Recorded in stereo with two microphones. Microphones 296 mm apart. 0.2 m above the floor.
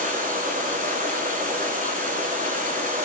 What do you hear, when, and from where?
0.0 s running water: 25° right (ahead or behind), 4.5 m